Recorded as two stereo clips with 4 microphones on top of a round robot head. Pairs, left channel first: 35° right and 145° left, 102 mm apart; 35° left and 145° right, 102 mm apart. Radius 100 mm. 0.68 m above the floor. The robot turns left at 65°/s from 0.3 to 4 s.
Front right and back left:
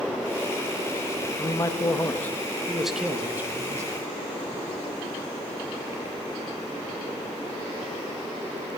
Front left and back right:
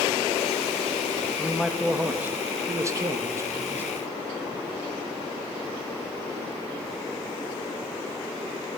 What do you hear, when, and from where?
1.4 s a man speaking: 35° right, 1.1 m; by 3.9 s 165° left, 1.1 m